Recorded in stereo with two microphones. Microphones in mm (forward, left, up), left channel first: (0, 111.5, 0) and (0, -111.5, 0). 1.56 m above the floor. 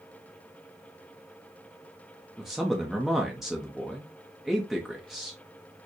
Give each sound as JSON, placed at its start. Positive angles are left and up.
{"t": 2.4, "sound": "a man speaking", "side_deg": 0, "distance_m": 0.6}